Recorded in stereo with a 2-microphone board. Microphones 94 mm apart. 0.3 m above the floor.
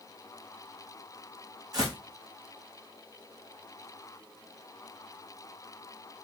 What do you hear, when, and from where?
1.7 s footsteps: 40° right (ahead or behind), 1.4 m